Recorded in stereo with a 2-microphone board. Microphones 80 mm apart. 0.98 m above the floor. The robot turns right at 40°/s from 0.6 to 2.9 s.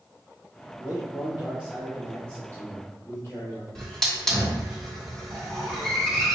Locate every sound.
0.8 s a man speaking: 45° right, 1.6 m; by 3.6 s 40° left, 1.6 m
3.8 s a hiss: 10° left (ahead or behind), 1.3 m